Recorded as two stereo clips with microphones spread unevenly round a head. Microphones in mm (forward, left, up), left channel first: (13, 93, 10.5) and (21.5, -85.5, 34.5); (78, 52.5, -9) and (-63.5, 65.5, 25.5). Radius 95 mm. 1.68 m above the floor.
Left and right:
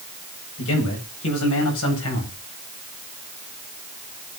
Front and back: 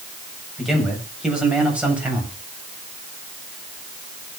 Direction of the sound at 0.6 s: 90° left.